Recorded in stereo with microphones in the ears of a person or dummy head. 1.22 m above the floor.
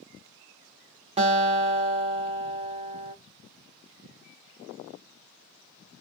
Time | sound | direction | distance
1.2 | a guitar | 30° right (ahead or behind) | 0.7 m